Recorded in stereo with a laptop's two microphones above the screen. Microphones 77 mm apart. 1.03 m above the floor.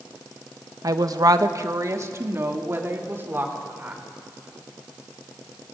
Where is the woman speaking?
50° right (ahead or behind), 1.1 m; by 4.0 s 25° right (ahead or behind), 5 m.